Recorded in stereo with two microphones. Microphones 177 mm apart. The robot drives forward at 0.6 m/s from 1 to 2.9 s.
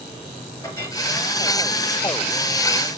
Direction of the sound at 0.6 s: 20° left (ahead or behind).